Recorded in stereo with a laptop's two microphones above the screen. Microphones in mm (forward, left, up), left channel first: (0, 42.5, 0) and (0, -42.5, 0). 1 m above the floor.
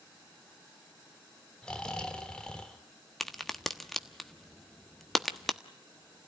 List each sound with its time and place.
1.6 s snoring: 10° left (ahead or behind), 1.3 m
3.2 s a crack: 5° left (ahead or behind), 1.3 m